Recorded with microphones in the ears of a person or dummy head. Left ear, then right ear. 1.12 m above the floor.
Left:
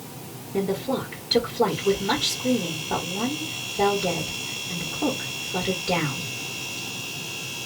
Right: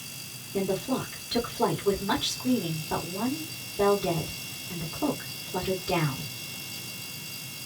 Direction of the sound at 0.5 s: 70° left (ahead or behind).